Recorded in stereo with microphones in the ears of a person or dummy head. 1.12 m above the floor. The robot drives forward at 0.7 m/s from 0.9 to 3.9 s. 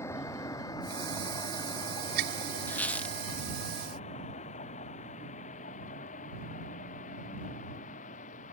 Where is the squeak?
10° left (ahead or behind); by 3.2 s 5° left (ahead or behind).